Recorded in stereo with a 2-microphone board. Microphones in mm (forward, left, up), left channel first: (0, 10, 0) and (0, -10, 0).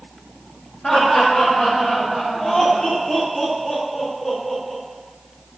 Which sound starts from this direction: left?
Laughter, at 0.8 s.